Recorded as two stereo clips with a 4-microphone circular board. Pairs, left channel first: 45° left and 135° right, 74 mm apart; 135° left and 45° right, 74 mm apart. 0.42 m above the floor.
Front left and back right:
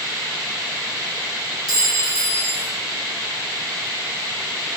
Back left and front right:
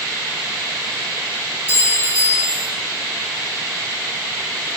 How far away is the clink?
About 2 m.